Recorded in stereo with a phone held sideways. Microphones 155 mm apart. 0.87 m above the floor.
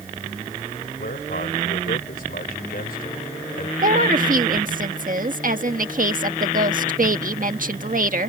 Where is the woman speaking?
60° right (ahead or behind).